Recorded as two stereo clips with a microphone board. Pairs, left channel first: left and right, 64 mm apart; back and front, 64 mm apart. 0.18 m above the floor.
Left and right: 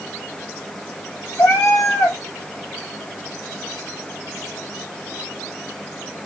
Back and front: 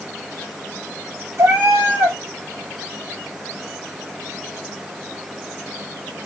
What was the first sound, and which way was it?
A cat meowing, 45° left.